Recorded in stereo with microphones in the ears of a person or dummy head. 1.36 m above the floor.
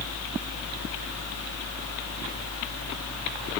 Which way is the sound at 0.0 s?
65° left (ahead or behind).